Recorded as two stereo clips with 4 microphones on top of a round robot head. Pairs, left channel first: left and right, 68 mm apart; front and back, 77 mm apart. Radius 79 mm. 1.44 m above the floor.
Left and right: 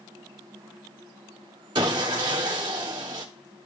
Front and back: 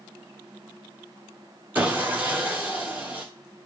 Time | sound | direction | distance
1.8 | sawing | 105° right | 0.6 m